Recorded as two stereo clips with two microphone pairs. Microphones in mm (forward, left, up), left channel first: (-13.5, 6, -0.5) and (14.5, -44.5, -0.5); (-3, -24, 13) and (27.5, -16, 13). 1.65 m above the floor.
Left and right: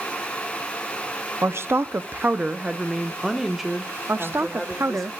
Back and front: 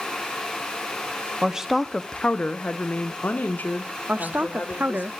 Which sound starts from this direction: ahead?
A woman speaking, at 4.1 s.